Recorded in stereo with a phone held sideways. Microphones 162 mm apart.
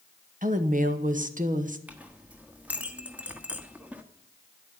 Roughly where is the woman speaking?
Right.